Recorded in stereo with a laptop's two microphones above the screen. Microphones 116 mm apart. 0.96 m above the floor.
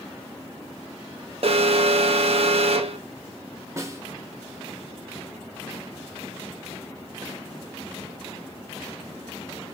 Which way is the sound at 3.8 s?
25° right (ahead or behind).